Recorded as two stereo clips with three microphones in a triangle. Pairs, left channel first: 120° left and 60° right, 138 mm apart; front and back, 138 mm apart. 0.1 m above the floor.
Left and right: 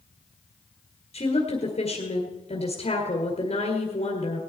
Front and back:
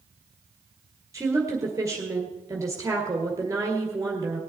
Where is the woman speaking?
120° left, 1.8 m.